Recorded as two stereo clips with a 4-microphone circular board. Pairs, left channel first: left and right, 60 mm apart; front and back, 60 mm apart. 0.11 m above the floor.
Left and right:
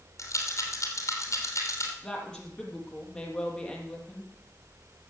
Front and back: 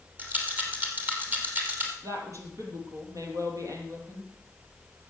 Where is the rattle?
120° left, 2.5 m.